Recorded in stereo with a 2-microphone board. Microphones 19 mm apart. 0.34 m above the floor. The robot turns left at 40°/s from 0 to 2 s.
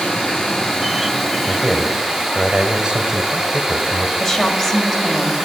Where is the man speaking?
35° right (ahead or behind), 1.1 m; by 4.1 s 45° right (ahead or behind), 1.1 m.